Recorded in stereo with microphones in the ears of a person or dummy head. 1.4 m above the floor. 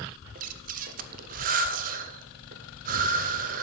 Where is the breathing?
45° right (ahead or behind), 0.7 m.